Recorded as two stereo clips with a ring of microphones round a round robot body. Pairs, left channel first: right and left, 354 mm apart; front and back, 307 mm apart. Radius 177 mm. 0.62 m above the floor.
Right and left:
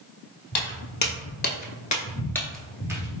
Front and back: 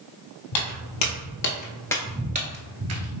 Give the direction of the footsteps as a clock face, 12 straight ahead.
1 o'clock.